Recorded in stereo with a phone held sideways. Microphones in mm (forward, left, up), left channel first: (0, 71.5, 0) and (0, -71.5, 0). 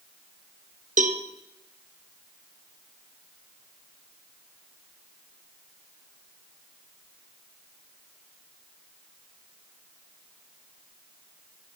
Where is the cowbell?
60° right (ahead or behind), 0.7 m.